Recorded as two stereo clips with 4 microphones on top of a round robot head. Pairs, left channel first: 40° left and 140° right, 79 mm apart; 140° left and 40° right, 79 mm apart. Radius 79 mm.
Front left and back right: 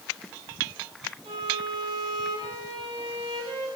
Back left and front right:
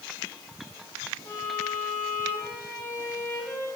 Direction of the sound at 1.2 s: 160° right.